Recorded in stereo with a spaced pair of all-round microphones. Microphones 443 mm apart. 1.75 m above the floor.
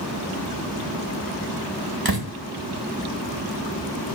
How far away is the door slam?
About 1.6 m.